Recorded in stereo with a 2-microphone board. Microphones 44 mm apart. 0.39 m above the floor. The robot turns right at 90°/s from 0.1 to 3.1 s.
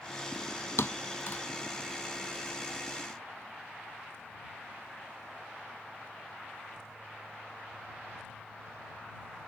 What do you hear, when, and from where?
0.8 s a thud: 75° left (ahead or behind); by 1.4 s 45° left (ahead or behind)